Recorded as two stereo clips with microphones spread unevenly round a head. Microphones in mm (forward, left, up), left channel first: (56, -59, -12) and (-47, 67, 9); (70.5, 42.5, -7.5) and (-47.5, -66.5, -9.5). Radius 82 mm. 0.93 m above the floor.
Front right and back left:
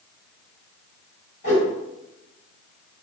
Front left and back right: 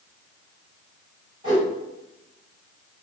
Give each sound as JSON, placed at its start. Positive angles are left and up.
{"t": 1.4, "sound": "a whoosh", "azimuth_deg": -75, "distance_m": 1.7}